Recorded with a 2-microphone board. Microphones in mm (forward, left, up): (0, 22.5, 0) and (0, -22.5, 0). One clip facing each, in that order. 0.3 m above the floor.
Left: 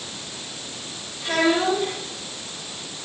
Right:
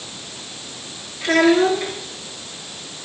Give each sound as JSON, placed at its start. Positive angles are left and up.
{"t": 1.2, "sound": "a child speaking", "side_deg": -70, "distance_m": 4.5}